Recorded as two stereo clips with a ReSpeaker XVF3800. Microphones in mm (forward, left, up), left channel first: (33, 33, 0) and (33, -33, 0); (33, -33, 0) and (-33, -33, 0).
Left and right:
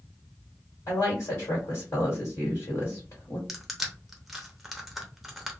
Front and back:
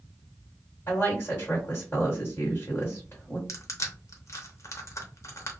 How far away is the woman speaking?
About 1.7 m.